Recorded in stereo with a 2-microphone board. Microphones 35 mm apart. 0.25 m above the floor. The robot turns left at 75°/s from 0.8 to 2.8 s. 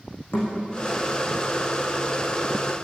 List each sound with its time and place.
0.3 s a thud: 85° left, 6 m